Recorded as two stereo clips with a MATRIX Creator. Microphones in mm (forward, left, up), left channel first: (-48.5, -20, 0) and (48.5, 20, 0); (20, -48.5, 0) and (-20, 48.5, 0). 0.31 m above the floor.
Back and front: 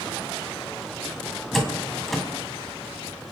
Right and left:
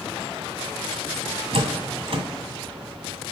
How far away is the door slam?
About 1.8 m.